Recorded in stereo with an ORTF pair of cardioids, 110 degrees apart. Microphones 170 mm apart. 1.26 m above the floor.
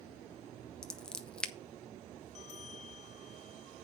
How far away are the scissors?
About 1.0 m.